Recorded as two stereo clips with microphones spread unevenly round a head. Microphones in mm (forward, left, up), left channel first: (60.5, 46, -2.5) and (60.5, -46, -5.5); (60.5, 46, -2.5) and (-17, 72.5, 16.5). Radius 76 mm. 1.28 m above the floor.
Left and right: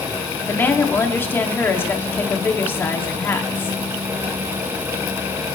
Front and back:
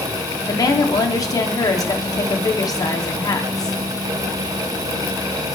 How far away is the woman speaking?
About 3 m.